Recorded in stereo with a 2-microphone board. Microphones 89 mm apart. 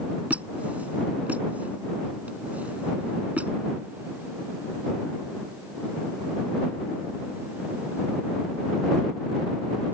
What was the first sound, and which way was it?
A squeak, 15° right (ahead or behind).